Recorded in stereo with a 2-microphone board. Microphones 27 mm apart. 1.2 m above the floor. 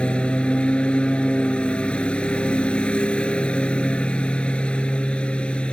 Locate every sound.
0.0 s a lawn mower: 45° left (ahead or behind)